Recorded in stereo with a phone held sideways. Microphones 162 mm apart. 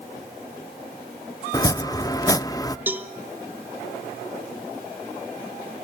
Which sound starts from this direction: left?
Chopping, at 1.5 s.